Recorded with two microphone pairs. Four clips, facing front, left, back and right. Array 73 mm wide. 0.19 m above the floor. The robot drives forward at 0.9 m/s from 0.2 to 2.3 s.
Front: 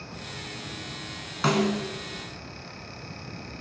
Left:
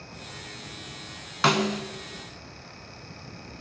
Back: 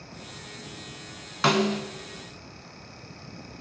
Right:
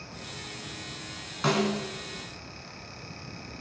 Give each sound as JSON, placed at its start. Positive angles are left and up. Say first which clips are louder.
{"t": 1.4, "sound": "a snare drum", "louder": "left 3 dB, back 1 dB", "azimuth_deg": 105, "distance_m": 1.3}